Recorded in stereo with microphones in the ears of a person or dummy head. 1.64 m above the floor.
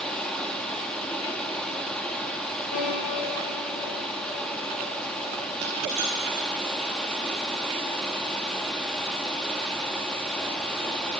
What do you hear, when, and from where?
0.0 s running water: 5° left (ahead or behind), 1.7 m
2.7 s a piano: 80° left, 8 m
5.6 s a dropped coin: 55° right (ahead or behind), 4.5 m